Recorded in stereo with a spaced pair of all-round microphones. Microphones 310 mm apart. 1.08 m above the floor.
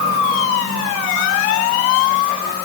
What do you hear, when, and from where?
Only background noise.